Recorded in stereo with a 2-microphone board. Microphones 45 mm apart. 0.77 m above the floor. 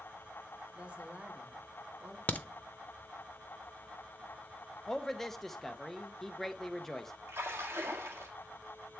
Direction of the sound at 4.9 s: 10° left (ahead or behind).